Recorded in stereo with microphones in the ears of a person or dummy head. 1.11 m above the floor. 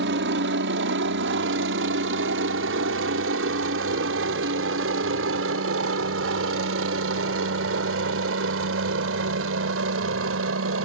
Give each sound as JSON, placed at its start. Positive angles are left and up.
{"t": 0.0, "sound": "a helicopter", "side_deg": -60}